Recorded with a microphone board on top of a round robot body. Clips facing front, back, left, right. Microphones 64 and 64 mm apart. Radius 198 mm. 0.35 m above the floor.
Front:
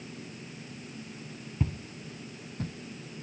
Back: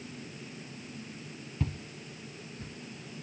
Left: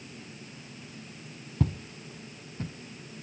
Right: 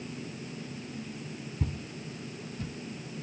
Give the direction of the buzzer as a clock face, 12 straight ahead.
I don't hear a buzzer.